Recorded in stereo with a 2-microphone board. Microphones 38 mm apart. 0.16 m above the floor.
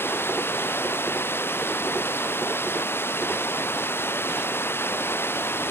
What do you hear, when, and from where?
0.0 s running water: 85° left